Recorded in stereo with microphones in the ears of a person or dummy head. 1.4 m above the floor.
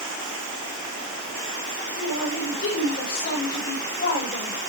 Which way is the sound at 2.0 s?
45° left (ahead or behind).